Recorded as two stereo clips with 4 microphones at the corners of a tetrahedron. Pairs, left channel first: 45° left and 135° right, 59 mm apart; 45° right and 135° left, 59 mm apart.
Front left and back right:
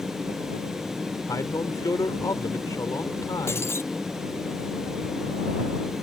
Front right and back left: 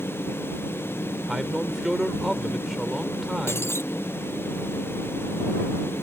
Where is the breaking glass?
Straight ahead.